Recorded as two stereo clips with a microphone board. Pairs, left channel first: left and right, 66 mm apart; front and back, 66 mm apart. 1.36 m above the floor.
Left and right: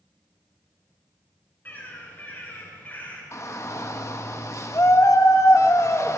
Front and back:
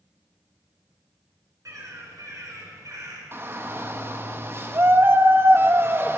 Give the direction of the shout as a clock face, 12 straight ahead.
8 o'clock.